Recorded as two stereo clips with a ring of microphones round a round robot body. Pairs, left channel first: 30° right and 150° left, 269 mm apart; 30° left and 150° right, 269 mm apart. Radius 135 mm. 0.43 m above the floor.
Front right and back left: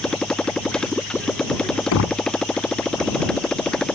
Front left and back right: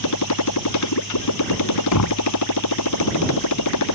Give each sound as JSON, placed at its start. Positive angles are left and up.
{"t": 0.0, "sound": "a motorcycle", "azimuth_deg": 55}
{"t": 1.9, "sound": "knocking", "azimuth_deg": 5}